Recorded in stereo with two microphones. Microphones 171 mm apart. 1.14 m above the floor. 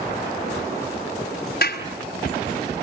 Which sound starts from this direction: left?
A clap, at 1.6 s.